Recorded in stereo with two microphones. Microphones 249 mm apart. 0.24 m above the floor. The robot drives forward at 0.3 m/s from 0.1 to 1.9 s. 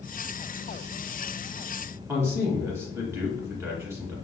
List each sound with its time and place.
2.1 s a man speaking: 10° right (ahead or behind), 1.5 m